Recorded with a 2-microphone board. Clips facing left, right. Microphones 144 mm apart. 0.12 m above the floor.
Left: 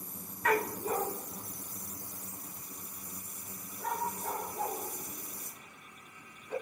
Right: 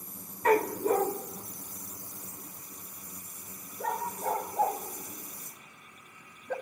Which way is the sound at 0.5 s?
35° right (ahead or behind).